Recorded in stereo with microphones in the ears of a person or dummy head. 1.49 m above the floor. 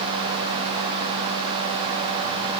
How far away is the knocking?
I don't hear knocking.